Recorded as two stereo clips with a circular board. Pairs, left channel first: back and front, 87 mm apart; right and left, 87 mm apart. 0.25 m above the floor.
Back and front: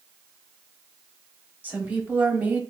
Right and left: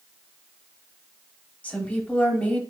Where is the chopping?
No chopping in this recording.